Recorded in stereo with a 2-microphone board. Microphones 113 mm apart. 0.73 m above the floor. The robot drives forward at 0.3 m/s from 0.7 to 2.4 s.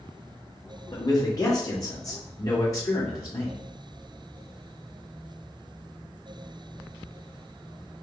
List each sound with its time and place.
0.9 s a man speaking: 35° left (ahead or behind), 1.2 m; by 3.6 s 25° left (ahead or behind), 1.5 m